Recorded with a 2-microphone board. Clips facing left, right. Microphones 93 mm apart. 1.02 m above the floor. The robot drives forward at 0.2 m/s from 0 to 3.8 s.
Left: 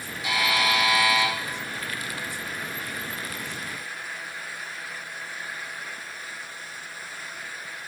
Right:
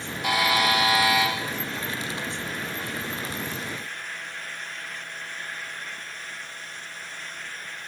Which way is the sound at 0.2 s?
50° right (ahead or behind).